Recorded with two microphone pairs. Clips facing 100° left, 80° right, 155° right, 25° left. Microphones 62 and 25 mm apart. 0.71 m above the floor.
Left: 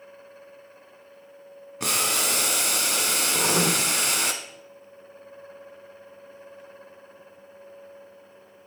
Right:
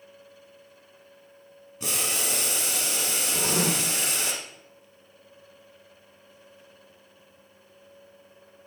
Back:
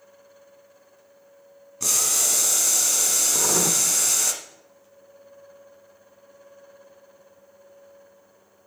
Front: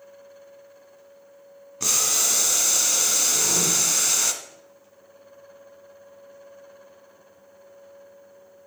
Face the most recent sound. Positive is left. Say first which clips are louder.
# left 3 dB, even
turn(degrees=160)